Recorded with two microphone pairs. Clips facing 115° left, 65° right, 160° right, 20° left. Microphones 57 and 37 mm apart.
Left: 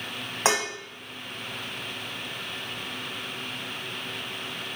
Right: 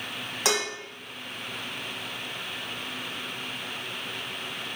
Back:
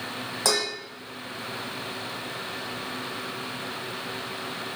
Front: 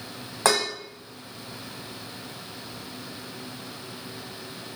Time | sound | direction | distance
0.5 | dishes clattering | 55° left | 1.2 m